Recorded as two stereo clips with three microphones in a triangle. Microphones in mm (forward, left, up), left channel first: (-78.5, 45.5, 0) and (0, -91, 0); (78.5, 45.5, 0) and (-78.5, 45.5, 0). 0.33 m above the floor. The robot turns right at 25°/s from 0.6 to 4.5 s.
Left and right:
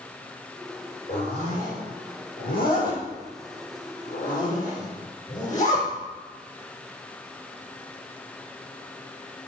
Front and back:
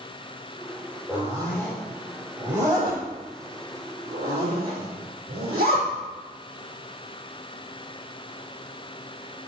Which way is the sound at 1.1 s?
70° left.